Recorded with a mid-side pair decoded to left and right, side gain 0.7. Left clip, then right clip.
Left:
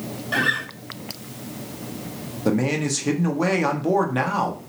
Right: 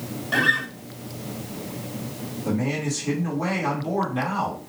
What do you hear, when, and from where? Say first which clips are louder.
0.3 s a guitar: right 1 dB; 5° left, 0.7 m
2.5 s a man speaking: left 5 dB; 45° left, 1.0 m